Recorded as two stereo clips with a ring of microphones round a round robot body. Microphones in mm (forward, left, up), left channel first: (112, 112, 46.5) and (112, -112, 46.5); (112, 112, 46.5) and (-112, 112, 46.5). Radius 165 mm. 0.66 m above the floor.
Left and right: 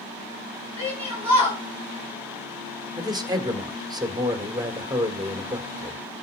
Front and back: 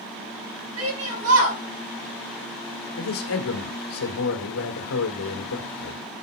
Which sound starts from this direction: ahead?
A man speaking, at 3.0 s.